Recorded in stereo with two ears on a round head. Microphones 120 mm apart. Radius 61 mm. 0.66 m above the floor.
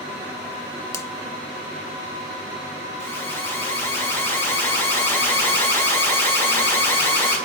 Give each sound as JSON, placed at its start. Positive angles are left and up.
{"t": 0.9, "sound": "a finger snap", "side_deg": 20, "distance_m": 0.6}
{"t": 3.0, "sound": "an alarm", "side_deg": 20, "distance_m": 6.0}